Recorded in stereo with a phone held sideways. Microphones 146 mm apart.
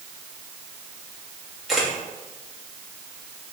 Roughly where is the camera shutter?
Centre.